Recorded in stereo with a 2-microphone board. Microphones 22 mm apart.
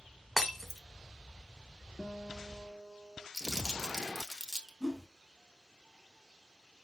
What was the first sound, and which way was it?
Breaking glass, 5° left (ahead or behind).